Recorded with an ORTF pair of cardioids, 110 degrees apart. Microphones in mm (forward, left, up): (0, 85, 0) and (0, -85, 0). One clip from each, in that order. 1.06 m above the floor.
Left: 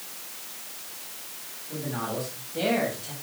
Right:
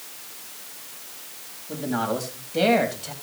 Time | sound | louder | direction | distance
1.7 | a man speaking | right 6 dB | 60° right | 8 m